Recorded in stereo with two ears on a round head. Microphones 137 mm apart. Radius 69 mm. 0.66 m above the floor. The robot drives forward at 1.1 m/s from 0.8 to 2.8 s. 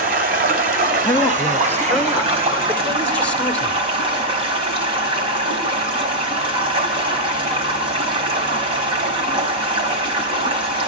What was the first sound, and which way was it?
Running water, 60° right (ahead or behind).